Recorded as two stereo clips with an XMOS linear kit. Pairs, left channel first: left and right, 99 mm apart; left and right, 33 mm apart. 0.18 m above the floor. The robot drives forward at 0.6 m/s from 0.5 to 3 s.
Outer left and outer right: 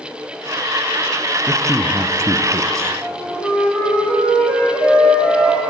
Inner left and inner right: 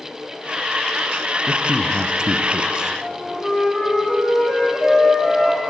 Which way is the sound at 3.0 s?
10° right (ahead or behind).